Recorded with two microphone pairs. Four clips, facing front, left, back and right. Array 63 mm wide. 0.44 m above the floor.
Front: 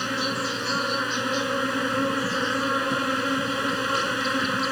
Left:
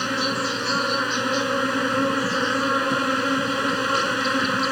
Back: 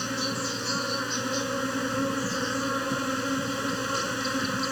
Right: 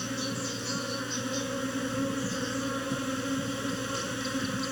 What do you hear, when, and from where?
0.0 s an insect: 75° left